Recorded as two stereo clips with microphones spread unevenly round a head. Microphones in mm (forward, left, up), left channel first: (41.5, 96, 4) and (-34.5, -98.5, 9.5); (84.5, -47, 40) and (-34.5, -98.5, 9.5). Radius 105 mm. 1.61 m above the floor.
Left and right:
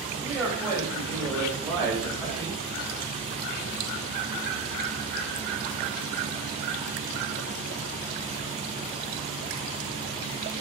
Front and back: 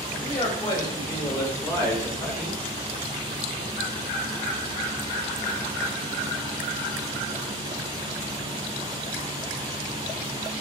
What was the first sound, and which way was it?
A man speaking, 30° right.